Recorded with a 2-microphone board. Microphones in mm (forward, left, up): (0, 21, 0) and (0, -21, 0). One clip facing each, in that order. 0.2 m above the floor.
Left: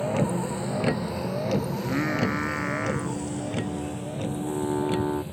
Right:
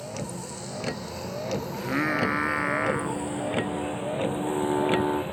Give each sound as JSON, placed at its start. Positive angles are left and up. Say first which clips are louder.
{"t": 0.0, "sound": "a vehicle", "louder": "left 9 dB", "side_deg": 30}
{"t": 1.7, "sound": "singing", "louder": "even", "side_deg": -15}